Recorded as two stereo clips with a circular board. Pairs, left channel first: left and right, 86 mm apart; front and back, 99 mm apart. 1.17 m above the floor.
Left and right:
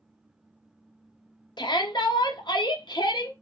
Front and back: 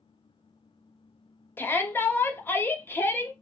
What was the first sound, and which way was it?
A shout, 70° left.